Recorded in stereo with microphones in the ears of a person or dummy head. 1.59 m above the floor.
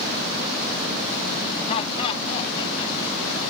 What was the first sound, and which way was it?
Laughter, 35° left (ahead or behind).